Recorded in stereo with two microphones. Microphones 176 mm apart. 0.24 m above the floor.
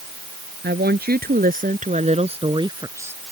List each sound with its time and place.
0.6 s a woman speaking: 70° right (ahead or behind); by 3.2 s 10° right (ahead or behind)